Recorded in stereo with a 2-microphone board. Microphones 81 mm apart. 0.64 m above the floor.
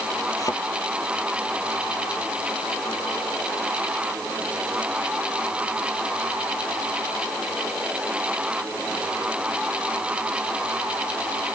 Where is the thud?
45° left (ahead or behind).